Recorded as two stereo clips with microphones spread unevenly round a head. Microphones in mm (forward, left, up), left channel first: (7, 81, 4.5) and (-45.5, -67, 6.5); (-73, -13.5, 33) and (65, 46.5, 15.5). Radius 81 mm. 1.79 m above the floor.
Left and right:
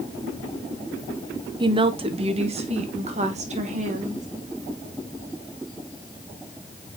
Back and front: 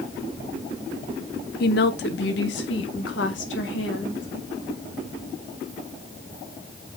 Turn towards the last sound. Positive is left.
turn(degrees=-155)